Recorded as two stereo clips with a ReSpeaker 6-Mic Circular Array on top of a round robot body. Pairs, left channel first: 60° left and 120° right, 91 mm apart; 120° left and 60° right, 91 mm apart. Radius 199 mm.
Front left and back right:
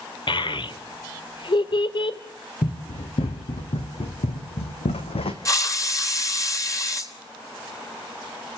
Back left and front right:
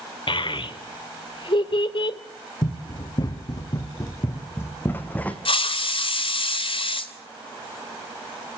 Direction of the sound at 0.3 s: 90° left.